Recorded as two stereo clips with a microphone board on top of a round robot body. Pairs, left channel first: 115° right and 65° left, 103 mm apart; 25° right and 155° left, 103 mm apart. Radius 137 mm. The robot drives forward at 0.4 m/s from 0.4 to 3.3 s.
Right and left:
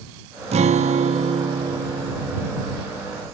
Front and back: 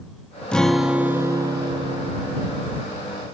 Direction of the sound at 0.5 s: 60° left.